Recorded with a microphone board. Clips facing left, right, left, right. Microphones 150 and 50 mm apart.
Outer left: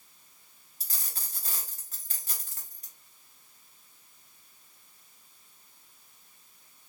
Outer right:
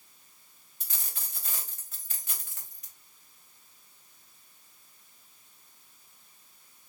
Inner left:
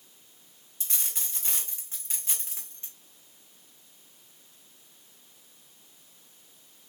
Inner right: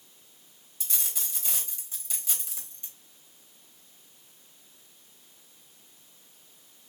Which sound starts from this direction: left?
A dropped coin, at 0.8 s.